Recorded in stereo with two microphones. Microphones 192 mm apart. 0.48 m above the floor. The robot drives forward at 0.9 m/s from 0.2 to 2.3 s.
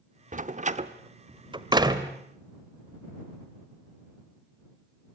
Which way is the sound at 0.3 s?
40° right (ahead or behind).